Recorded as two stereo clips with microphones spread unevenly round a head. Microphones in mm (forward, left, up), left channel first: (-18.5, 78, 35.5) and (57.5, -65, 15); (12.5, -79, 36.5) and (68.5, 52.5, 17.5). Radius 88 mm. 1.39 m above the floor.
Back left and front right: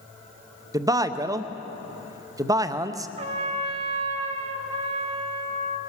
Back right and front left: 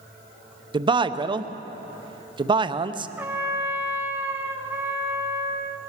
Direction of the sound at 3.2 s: 15° right.